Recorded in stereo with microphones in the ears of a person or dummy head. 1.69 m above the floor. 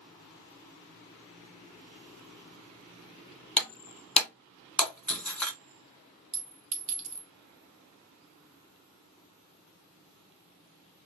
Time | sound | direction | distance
3.6 | breaking glass | 5° left (ahead or behind) | 1.9 m
6.3 | a clink | 40° right (ahead or behind) | 1.8 m